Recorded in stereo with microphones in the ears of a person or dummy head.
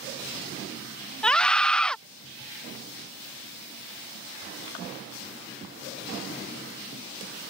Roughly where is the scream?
Centre.